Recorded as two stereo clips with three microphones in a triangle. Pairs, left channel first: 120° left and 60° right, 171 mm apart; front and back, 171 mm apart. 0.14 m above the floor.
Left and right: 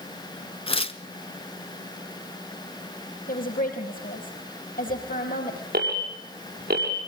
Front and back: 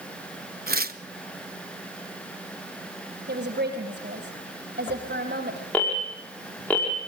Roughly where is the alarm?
Right.